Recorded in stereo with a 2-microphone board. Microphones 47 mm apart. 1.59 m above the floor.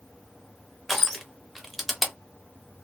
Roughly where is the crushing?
Centre.